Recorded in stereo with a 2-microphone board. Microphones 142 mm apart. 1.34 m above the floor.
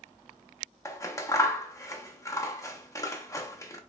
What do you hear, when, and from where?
0.8 s scissors: 20° left (ahead or behind), 0.5 m